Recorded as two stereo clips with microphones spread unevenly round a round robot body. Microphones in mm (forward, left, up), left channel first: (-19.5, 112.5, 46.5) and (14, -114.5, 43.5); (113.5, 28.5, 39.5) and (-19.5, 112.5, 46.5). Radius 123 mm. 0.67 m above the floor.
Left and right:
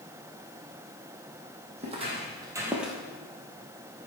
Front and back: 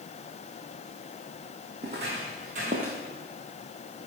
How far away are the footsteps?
About 1.8 m.